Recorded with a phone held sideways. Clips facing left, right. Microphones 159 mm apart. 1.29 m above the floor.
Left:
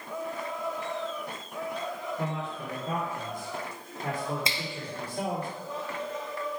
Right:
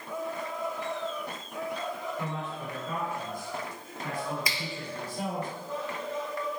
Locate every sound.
2.2 s a man speaking: 35° left (ahead or behind), 3 m; by 5.5 s 75° left (ahead or behind), 5 m
4.5 s a finger snap: 25° left (ahead or behind), 0.7 m